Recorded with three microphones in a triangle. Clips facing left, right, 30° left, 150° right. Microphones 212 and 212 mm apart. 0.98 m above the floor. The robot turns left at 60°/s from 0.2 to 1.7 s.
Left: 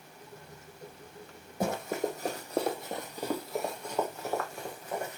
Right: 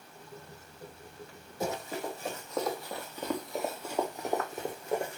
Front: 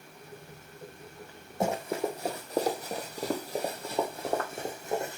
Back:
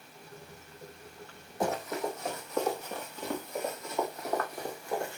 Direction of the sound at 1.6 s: 90° left.